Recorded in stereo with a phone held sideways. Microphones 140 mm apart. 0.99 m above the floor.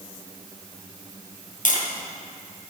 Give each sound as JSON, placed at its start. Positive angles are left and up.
{"t": 1.6, "sound": "tapping", "side_deg": 65, "distance_m": 2.5}